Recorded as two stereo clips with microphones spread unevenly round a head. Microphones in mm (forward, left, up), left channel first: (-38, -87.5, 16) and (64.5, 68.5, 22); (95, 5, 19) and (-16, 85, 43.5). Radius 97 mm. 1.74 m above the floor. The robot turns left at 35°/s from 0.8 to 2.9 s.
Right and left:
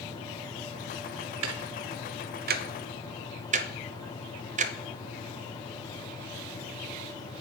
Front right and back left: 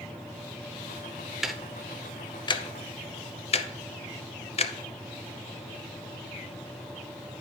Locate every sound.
1.4 s ticking: 60° left, 0.7 m; by 4.7 s 5° left, 0.7 m